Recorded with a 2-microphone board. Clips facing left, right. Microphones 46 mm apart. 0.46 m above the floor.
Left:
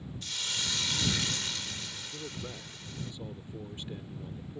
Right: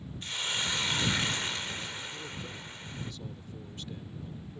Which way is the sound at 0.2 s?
25° right (ahead or behind).